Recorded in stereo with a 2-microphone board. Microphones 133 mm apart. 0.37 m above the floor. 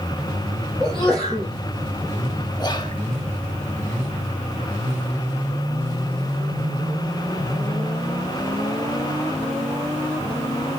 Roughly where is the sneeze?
Centre.